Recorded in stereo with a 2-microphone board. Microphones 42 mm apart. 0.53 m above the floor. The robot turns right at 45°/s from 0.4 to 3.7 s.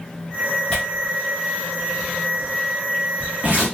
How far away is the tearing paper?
About 1.3 m.